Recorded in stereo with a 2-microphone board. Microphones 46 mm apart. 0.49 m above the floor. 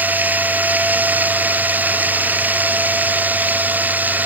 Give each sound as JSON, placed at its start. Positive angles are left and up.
{"t": 0.0, "sound": "running water", "side_deg": -35}